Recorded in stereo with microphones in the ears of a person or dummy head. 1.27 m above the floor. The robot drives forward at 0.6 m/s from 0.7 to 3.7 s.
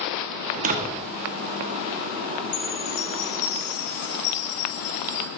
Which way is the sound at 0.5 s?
45° right (ahead or behind).